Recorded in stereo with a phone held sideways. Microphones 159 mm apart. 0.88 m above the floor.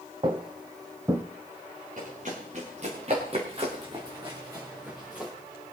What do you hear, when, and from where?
0.2 s footsteps: 35° right (ahead or behind), 1.6 m; by 1.2 s 15° right (ahead or behind), 1.6 m
2.0 s running footsteps: 60° right (ahead or behind), 6.5 m; by 5.3 s 5° right (ahead or behind), 4.5 m